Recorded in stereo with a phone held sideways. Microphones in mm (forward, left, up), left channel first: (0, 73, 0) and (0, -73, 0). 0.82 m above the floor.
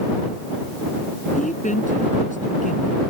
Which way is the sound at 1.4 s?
60° left (ahead or behind).